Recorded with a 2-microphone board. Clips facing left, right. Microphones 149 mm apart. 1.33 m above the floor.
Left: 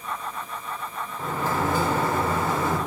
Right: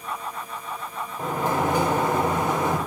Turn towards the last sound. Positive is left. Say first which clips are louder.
# right 2 dB
turn(degrees=-20)  # may be behind; listen again after turning